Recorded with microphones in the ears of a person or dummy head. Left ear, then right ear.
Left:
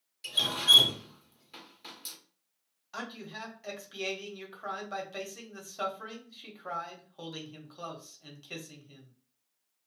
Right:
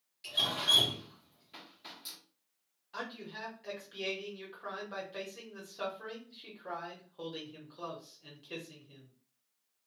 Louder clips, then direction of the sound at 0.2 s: Left 5 dB; 15° left (ahead or behind).